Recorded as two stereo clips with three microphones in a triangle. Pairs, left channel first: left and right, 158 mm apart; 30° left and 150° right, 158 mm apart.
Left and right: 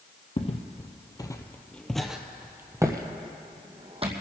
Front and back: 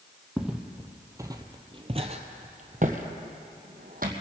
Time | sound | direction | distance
0.4 | footsteps | 120° left | 1.2 m